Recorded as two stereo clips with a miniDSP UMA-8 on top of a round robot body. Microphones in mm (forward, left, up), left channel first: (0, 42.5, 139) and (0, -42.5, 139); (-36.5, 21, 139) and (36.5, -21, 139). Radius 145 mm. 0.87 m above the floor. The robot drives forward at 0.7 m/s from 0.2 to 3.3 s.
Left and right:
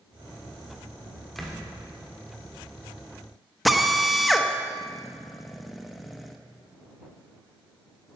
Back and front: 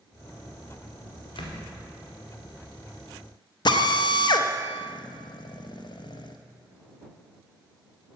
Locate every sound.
1.4 s a door slam: 175° left, 1.8 m; by 1.6 s straight behind, 2 m
3.6 s a drill: straight behind, 1.0 m